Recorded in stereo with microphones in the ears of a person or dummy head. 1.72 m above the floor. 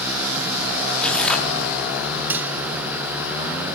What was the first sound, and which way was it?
Tearing paper, 10° left (ahead or behind).